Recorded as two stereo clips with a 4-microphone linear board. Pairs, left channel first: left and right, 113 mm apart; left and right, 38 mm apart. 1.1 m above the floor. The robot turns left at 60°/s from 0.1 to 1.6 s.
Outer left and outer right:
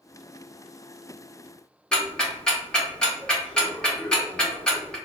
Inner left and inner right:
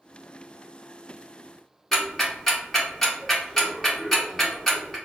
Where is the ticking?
5° left (ahead or behind), 1.0 m.